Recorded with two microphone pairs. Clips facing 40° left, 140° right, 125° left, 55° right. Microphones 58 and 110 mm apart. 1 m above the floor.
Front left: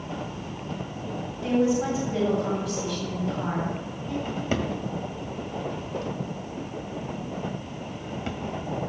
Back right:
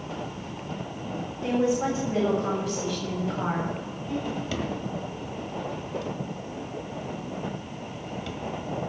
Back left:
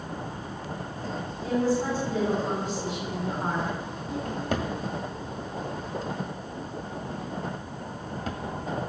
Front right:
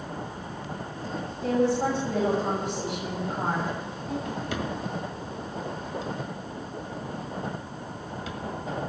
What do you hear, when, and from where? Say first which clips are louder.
1.4 s a woman speaking: front left 1 dB, front right 2 dB; 85° right, 6 m
4.2 s a drawer: front left 2 dB, back left 2 dB; 90° left, 1.7 m